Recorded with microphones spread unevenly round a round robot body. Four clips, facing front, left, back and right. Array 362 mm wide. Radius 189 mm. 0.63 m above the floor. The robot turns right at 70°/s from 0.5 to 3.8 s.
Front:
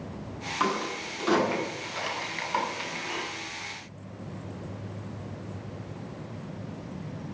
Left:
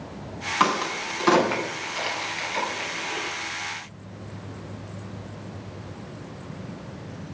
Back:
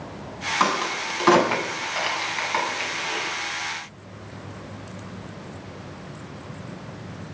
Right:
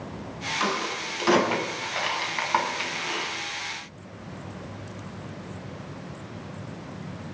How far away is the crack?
About 7 m.